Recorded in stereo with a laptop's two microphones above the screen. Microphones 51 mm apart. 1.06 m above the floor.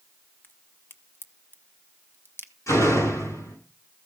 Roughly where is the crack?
Left.